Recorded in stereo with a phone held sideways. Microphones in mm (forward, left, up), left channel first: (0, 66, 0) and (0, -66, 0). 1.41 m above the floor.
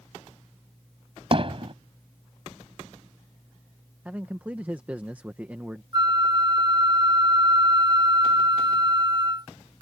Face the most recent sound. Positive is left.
turn(degrees=-35)  # may be behind; listen again after turning